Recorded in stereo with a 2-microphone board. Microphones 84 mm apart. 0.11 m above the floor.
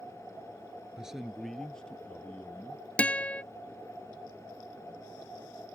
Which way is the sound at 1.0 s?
10° right (ahead or behind).